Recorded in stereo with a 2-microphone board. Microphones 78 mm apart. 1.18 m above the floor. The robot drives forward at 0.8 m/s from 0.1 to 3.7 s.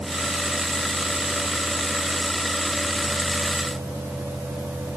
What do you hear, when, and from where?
Only background noise.